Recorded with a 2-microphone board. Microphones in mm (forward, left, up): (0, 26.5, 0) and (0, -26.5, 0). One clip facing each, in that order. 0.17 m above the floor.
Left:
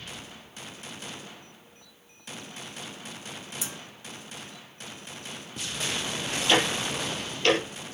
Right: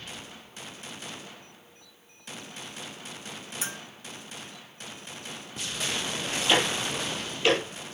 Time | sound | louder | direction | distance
3.6 | a bell | right 6 dB | 45° right (ahead or behind) | 1.6 m
6.5 | ticking | left 1 dB | 10° right (ahead or behind) | 3.5 m